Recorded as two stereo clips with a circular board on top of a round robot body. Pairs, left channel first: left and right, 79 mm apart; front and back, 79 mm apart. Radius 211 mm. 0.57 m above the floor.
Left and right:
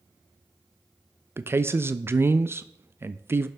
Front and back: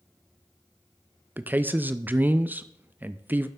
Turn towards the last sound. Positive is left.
turn(degrees=-130)